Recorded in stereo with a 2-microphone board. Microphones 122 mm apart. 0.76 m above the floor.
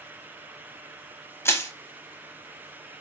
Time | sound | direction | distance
1.4 | crushing | 20° left (ahead or behind) | 0.6 m